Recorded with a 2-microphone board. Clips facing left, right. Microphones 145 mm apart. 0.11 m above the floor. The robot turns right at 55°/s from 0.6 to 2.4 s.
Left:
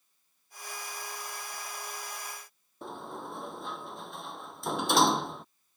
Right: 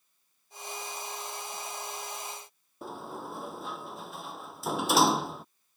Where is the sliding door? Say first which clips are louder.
Right 1 dB; 5° right (ahead or behind).